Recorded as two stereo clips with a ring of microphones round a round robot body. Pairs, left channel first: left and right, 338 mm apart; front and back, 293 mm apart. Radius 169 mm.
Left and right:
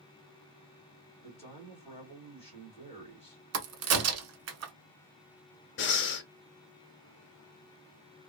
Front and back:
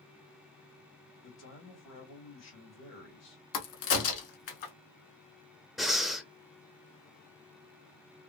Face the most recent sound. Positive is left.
turn(degrees=90)